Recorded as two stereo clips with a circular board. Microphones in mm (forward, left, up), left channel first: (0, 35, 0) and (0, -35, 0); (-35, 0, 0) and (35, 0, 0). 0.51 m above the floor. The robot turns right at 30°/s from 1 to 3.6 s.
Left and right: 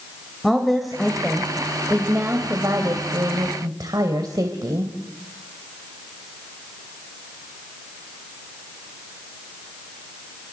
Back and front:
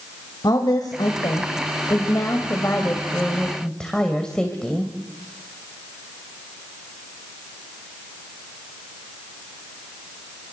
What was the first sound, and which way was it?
A woman speaking, straight behind.